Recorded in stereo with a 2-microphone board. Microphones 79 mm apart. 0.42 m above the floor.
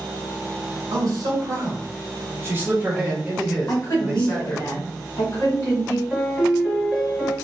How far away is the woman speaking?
About 1.5 m.